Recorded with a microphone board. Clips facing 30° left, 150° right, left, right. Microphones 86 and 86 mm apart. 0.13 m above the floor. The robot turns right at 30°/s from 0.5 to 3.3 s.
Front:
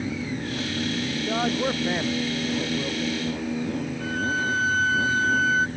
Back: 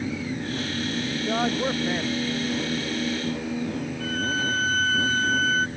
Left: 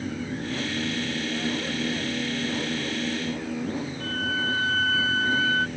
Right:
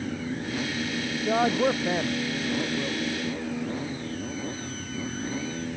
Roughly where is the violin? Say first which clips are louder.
Front 1 dB, left 4 dB; left.